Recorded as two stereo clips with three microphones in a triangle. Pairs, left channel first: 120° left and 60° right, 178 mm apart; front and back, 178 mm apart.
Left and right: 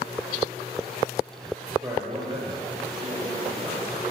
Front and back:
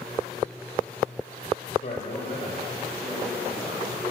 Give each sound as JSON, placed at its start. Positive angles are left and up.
{"t": 1.8, "sound": "a man speaking", "azimuth_deg": -10, "distance_m": 1.6}